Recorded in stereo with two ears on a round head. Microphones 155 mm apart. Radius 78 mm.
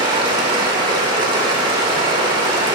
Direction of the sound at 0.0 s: 25° right (ahead or behind).